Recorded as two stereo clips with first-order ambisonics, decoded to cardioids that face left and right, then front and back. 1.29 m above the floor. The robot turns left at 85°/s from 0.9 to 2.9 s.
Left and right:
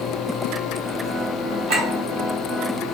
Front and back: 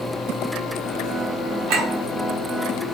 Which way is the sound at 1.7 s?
135° right.